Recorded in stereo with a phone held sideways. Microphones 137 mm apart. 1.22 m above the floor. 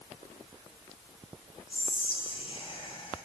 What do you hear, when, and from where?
1.7 s whispering: 40° left (ahead or behind), 0.5 m